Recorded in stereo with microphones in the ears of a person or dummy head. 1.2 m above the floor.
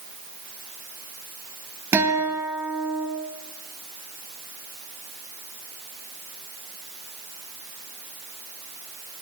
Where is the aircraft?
I don't hear an aircraft.